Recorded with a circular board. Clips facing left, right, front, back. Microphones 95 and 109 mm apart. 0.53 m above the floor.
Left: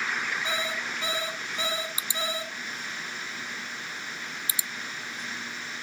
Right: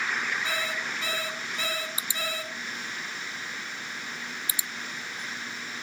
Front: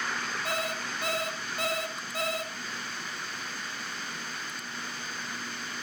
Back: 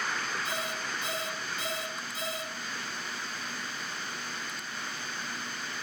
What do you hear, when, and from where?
0.5 s an alarm clock: 20° left, 2.5 m